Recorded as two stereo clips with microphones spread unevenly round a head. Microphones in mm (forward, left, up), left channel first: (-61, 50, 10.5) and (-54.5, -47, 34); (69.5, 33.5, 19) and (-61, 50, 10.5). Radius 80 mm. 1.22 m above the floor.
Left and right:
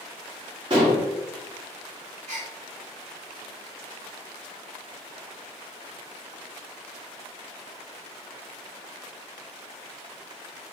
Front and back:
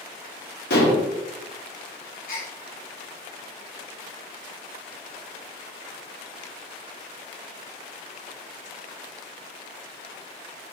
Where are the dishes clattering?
30° right, 1.5 m.